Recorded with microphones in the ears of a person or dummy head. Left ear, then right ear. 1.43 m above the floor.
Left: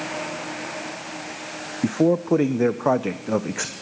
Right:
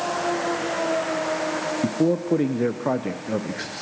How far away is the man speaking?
About 0.7 m.